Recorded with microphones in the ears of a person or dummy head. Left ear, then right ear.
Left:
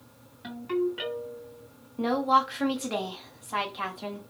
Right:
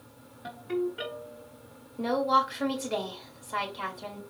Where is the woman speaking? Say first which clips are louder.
Left 1 dB; 15° left (ahead or behind), 1.1 m.